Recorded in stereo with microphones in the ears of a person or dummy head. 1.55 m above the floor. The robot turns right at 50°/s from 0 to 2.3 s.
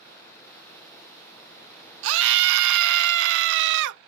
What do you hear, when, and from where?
2.0 s a scream: 80° right, 0.7 m; by 4.0 s 65° right (ahead or behind), 0.7 m